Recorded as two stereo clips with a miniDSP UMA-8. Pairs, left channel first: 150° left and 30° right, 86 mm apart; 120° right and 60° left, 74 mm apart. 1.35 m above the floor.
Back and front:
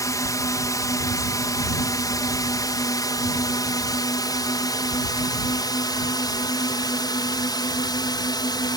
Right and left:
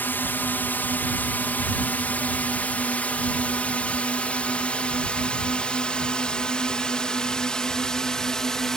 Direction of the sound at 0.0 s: 175° right.